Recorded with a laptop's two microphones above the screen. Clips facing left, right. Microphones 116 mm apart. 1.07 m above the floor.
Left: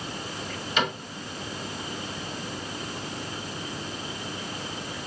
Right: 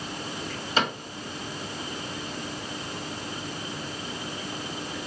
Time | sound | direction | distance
0.8 | a cupboard door | 35° right (ahead or behind) | 1.5 m